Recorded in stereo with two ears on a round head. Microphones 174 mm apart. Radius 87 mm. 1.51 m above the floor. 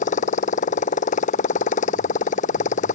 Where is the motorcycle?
40° left (ahead or behind).